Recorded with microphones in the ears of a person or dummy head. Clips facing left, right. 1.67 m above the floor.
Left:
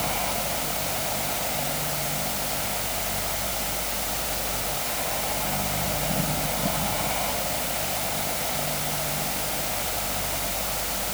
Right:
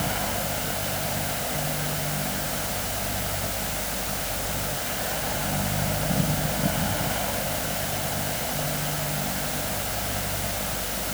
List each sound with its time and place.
0.0 s a fan: 15° right (ahead or behind)